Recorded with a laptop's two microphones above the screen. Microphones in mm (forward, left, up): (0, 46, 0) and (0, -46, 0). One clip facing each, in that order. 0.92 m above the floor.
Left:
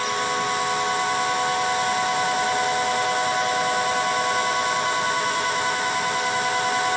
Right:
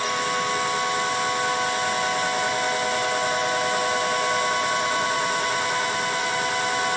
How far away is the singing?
No singing in this recording.